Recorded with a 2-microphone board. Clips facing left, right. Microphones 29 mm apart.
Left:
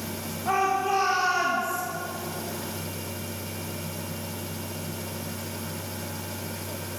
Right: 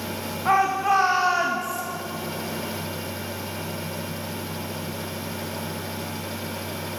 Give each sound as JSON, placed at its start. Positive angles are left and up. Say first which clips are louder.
{"t": 0.5, "sound": "a shout", "louder": "right 4 dB", "side_deg": -75, "distance_m": 2.0}